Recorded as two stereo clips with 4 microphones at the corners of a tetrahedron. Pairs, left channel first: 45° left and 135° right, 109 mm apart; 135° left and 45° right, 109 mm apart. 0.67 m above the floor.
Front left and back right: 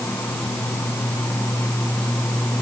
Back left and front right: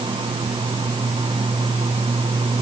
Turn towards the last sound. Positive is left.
No sound to turn to.